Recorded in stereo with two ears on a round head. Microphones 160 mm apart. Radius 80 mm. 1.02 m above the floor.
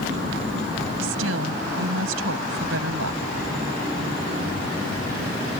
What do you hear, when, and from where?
1.0 s a woman speaking: 80° right